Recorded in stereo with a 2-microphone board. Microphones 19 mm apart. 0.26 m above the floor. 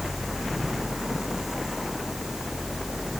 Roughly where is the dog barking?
I don't hear a dog barking.